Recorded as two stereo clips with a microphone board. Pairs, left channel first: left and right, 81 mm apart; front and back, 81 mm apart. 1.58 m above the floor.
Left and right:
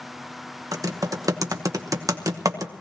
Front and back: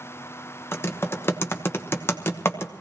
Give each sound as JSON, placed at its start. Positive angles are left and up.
{"t": 0.7, "sound": "typing on a keyboard", "azimuth_deg": -55, "distance_m": 1.0}